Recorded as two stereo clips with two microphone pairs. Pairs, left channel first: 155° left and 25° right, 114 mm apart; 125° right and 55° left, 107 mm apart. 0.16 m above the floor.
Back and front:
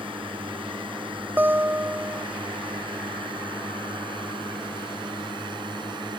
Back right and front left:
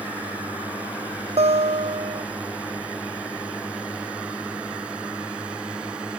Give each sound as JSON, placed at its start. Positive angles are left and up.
{"t": 0.0, "sound": "a drone", "azimuth_deg": -15}
{"t": 1.4, "sound": "a guitar", "azimuth_deg": 45}